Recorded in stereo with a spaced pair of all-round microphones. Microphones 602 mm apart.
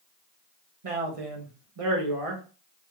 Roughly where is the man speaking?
Right.